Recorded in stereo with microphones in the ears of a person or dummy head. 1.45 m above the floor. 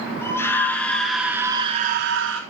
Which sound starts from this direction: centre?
A scream, at 0.2 s.